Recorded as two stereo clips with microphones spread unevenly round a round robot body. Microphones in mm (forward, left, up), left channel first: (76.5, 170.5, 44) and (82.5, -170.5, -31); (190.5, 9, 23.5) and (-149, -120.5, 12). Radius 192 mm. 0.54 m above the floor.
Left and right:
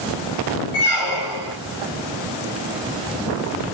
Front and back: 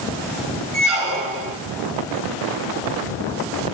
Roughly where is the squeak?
Behind left.